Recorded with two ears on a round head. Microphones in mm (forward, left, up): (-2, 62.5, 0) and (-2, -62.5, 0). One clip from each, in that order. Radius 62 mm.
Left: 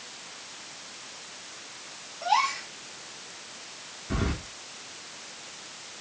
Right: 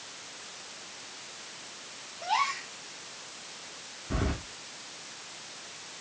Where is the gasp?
25° left (ahead or behind), 3.5 m.